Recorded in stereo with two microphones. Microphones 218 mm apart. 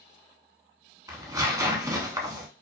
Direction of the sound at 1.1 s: 15° right (ahead or behind).